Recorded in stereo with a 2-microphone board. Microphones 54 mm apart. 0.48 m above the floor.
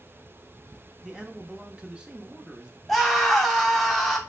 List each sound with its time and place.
1.0 s a man speaking: 15° right (ahead or behind), 0.8 m
2.9 s a scream: centre (ahead or behind), 1.2 m